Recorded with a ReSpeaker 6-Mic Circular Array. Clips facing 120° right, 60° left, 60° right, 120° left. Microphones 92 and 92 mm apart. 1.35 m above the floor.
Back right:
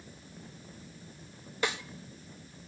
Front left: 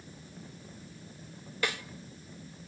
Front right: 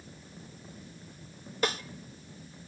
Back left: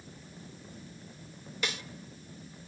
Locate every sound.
1.6 s a snare drum: 65° right, 1.2 m